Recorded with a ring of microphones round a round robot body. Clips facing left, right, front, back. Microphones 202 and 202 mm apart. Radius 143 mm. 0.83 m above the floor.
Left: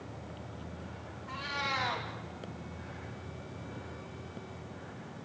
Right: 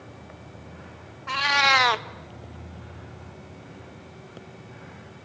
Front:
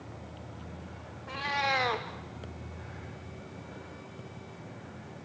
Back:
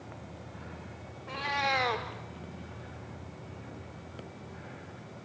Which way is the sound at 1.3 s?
90° right.